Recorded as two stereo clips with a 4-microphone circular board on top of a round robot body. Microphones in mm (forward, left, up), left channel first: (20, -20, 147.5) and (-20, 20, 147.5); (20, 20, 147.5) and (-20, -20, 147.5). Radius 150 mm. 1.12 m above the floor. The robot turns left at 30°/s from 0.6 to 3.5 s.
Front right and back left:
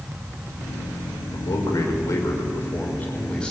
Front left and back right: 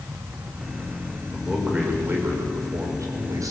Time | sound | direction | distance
1.3 | a man speaking | 55° right | 5.5 m